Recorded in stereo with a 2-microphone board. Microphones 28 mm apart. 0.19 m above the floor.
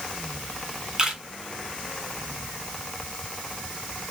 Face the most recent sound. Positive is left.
turn(degrees=-25)  # may be behind; listen again after turning